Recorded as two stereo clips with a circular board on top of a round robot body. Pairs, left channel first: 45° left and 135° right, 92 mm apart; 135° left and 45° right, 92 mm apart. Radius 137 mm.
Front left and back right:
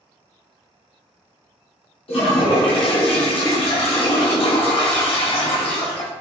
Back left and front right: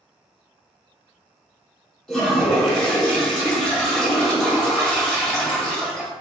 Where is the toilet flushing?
45° left, 1.7 m.